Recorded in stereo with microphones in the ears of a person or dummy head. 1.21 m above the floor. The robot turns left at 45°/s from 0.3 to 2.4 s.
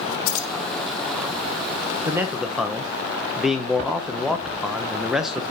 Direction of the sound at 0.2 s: 55° left (ahead or behind).